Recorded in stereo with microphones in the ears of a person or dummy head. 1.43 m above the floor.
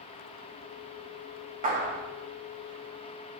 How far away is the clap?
About 1.9 m.